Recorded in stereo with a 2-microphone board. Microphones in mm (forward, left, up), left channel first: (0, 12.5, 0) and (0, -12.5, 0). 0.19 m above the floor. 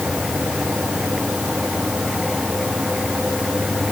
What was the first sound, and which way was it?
Only background noise.